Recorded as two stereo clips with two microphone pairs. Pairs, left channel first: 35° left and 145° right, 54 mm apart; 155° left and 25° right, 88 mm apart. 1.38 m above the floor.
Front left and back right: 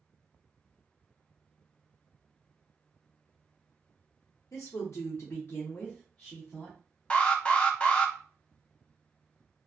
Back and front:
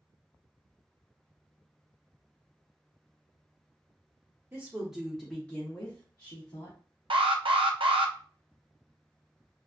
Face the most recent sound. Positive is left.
turn(degrees=-30)